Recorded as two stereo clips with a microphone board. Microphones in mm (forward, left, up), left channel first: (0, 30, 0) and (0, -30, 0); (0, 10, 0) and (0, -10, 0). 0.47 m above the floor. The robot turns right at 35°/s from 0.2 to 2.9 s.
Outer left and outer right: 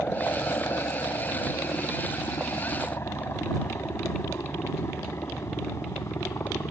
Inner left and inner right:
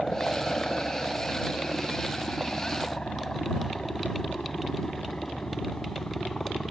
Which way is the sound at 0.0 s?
35° left (ahead or behind).